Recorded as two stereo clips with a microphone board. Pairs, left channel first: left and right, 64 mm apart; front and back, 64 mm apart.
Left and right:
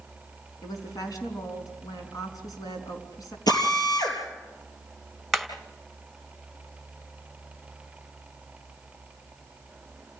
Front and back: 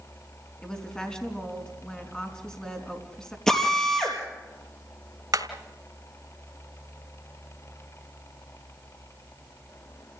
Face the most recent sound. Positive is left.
turn(degrees=180)